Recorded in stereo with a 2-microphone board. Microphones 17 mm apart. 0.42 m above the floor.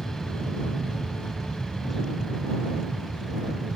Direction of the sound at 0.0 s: 40° left (ahead or behind).